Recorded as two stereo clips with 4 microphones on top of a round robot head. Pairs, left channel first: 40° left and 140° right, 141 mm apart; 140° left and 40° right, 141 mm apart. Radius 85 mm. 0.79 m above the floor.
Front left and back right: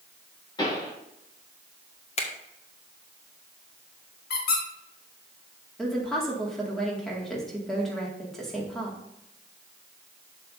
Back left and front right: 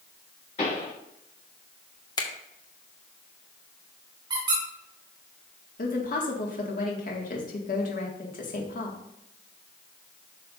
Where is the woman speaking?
125° left, 1.9 m.